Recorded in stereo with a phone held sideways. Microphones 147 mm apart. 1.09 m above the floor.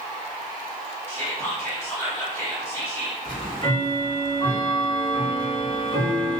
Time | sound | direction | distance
1.1 | whispering | 20° left (ahead or behind) | 1.3 m
3.2 | ticking | 30° left (ahead or behind) | 1.1 m